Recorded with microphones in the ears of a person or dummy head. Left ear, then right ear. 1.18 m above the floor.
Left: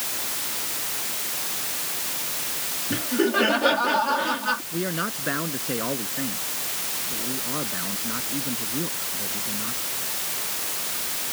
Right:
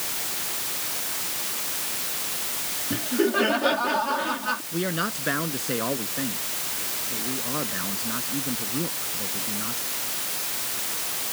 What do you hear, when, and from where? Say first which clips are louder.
2.9 s laughter: left 1 dB; 10° left (ahead or behind)
4.7 s a man speaking: right 1 dB; 5° right (ahead or behind)